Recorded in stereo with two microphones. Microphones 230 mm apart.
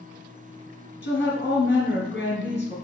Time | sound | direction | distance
1.0 | a woman speaking | 50° left (ahead or behind) | 1.8 m